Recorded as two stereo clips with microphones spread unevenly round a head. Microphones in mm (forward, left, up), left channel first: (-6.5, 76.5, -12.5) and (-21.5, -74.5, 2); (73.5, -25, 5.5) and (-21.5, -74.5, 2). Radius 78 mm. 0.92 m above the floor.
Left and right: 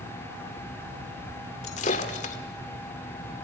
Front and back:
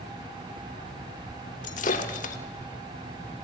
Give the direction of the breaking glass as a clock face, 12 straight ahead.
11 o'clock.